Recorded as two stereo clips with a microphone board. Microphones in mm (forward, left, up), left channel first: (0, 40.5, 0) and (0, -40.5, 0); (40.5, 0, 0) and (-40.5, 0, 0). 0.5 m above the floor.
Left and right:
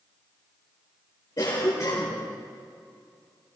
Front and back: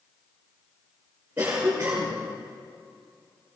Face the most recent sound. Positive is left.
turn(degrees=115)